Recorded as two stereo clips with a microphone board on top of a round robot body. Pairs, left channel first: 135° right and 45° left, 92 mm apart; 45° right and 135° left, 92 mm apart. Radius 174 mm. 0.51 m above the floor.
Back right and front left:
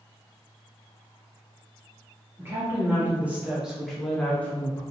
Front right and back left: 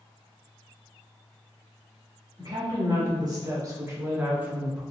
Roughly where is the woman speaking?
Left.